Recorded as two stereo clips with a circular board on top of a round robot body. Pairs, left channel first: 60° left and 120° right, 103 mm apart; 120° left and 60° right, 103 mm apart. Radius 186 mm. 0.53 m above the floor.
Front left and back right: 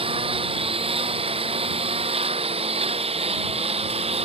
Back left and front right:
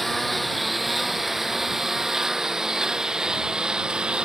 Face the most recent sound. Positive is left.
turn(degrees=-140)